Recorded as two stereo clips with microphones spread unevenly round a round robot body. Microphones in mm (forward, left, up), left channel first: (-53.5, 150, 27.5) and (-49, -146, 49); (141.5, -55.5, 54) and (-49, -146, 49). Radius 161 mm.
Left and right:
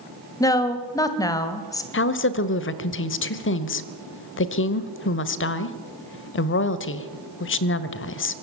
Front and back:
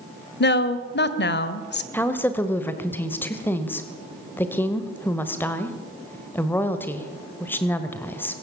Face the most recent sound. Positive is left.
turn(degrees=105)